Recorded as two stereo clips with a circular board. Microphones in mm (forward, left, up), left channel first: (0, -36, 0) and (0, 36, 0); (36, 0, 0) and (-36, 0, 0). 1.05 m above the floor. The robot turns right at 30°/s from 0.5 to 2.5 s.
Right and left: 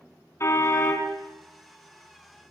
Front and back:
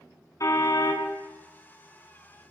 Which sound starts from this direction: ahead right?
A car horn, at 0.4 s.